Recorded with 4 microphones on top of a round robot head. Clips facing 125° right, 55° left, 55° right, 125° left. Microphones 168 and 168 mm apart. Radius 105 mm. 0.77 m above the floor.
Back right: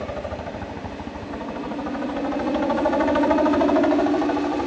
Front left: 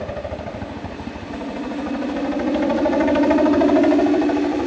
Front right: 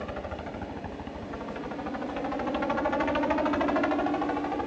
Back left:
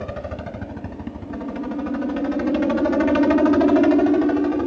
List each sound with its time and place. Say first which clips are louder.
0.0 s a helicopter: front left 2 dB, back left 6 dB; 120° left